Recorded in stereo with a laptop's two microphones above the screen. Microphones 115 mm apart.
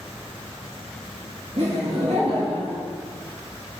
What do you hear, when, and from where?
1.6 s laughter: 65° right (ahead or behind), 1.4 m